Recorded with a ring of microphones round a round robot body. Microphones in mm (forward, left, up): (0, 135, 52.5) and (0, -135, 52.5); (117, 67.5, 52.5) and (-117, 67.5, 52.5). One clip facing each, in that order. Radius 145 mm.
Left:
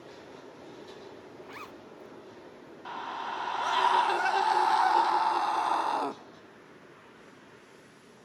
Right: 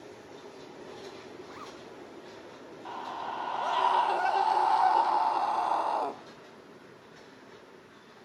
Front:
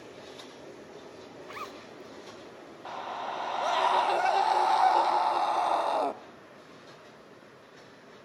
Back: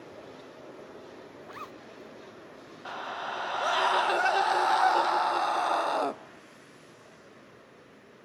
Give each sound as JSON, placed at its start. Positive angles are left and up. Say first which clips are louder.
{"t": 1.4, "sound": "a zipper", "louder": "right 1 dB, front 1 dB", "azimuth_deg": 55, "distance_m": 1.0}
{"t": 2.9, "sound": "a scream", "louder": "even, front 1 dB", "azimuth_deg": 115, "distance_m": 0.9}